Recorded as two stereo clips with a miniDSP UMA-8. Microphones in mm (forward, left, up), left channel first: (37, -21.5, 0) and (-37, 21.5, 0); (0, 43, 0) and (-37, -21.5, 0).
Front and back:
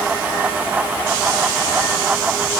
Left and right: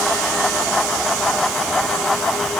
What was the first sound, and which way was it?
Only background noise.